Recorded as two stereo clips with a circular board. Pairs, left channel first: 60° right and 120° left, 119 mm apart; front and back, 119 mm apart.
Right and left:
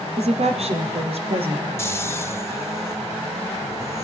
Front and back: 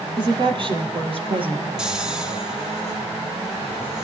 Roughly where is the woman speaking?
Behind left.